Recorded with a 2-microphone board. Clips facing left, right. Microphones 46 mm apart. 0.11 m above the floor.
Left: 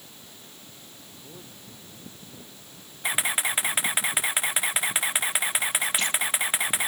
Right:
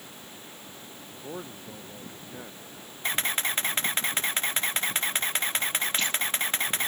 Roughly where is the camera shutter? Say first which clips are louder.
Left 2 dB; centre.